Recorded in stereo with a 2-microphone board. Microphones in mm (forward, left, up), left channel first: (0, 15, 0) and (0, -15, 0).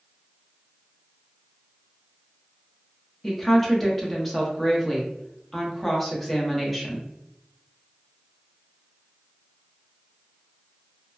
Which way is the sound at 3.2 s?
Centre (ahead or behind).